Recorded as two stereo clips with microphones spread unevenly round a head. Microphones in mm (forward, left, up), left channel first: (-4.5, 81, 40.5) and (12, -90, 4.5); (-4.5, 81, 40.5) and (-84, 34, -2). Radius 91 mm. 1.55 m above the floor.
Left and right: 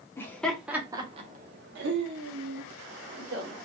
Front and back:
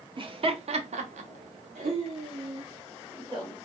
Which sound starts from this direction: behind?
Laughter, at 0.2 s.